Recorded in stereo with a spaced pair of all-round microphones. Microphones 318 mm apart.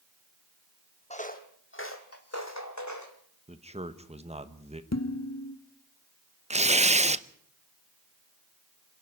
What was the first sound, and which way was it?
Footsteps, 20° left (ahead or behind).